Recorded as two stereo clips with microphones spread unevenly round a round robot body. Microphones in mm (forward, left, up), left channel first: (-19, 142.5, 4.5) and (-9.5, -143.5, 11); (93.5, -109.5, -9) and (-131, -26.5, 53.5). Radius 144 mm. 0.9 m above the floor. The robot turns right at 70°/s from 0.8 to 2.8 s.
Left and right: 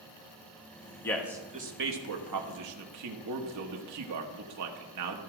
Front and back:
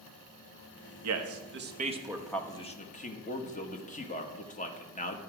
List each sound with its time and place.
1.0 s a man speaking: 170° left, 1.2 m; by 5.2 s 65° right, 1.2 m